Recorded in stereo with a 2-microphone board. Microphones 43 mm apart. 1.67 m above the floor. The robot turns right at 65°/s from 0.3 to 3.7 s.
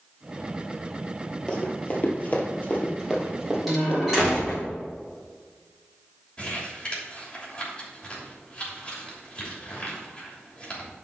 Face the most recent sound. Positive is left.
turn(degrees=20)  # may be behind; listen again after turning